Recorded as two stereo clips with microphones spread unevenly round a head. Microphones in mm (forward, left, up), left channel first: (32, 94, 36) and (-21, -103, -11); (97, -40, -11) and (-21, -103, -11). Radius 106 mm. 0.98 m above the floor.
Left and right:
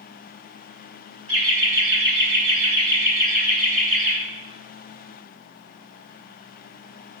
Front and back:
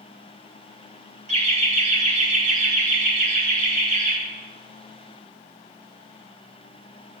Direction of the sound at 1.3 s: 120° right.